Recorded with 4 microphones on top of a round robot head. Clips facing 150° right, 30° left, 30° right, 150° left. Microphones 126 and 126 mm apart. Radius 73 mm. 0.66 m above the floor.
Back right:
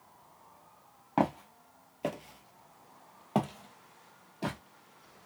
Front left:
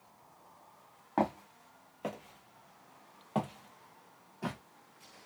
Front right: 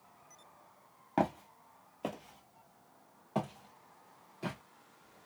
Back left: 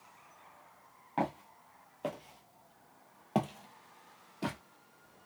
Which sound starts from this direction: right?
Footsteps, at 1.2 s.